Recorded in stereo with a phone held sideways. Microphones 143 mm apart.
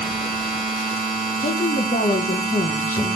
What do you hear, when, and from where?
0.0 s a machine running: centre (ahead or behind), 1.6 m
1.4 s a woman speaking: 70° left (ahead or behind), 0.7 m